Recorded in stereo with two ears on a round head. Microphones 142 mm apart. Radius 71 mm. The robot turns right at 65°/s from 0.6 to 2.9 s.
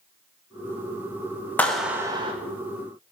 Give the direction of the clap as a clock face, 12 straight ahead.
6 o'clock.